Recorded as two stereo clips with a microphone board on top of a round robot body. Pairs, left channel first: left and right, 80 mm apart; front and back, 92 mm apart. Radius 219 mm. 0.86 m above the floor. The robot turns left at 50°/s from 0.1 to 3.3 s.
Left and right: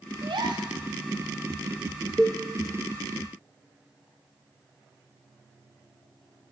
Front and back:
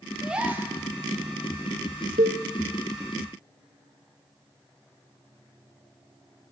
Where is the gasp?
95° right, 1.7 m; by 0.7 s 120° right, 1.7 m.